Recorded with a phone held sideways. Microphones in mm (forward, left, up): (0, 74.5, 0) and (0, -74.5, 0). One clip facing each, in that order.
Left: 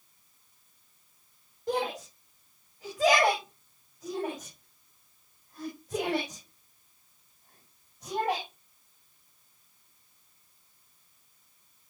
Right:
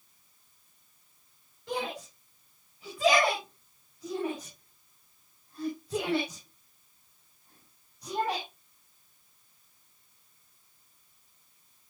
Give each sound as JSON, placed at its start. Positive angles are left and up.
{"t": 1.7, "sound": "a shout", "side_deg": 40, "distance_m": 6.5}